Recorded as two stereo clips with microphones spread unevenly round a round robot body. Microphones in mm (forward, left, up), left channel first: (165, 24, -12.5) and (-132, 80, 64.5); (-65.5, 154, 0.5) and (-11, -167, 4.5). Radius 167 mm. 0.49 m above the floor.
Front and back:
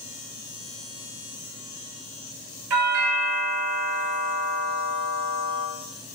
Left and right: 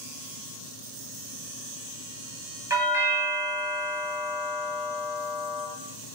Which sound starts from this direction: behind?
A doorbell, at 2.7 s.